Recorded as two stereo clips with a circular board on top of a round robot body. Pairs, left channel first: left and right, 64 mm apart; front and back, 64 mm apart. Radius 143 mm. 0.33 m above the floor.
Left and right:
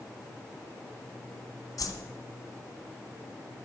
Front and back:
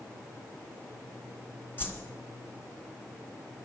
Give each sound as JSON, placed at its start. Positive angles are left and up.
{"t": 1.8, "sound": "a whoosh", "azimuth_deg": 60, "distance_m": 2.0}